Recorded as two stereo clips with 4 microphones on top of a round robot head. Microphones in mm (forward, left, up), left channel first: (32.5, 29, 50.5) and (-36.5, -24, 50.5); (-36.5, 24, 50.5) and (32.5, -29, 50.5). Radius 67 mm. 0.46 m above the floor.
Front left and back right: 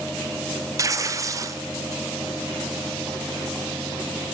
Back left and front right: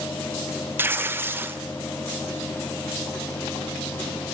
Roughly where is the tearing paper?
Right.